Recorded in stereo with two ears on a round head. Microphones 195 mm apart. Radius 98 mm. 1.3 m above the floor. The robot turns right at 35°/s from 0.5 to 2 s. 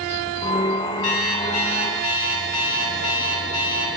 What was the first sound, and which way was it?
An alarm clock, 80° left.